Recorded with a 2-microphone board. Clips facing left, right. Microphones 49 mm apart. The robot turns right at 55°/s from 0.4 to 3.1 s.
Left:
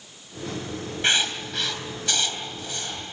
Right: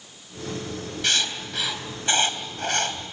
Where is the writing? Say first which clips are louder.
Left 3 dB; 30° left (ahead or behind), 3 m; by 3.0 s 75° right (ahead or behind), 3 m.